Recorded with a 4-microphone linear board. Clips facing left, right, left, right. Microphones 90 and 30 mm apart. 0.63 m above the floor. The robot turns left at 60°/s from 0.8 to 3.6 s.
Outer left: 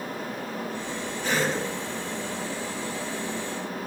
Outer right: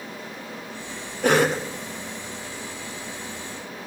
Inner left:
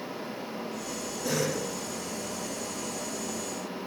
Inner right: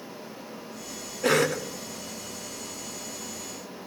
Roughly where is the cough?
Right.